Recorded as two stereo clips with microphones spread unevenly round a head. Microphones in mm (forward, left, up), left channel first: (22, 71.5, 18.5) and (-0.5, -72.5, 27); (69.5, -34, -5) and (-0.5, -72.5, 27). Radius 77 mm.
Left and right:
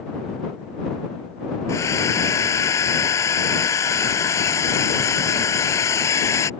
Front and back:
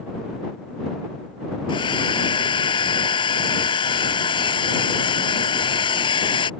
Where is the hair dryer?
10° left.